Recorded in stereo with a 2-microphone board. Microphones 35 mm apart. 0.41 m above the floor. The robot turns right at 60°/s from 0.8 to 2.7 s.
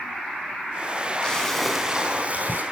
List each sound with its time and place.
1.2 s a splash: 155° left, 4 m; by 2.6 s 120° right, 4 m